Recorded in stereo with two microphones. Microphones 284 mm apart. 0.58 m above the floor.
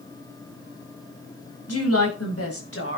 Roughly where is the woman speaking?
Left.